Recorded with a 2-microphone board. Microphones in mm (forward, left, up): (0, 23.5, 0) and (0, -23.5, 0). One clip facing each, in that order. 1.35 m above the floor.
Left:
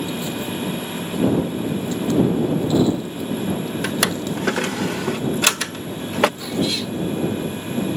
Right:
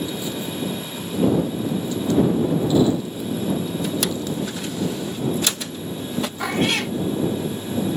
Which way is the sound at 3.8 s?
65° left (ahead or behind).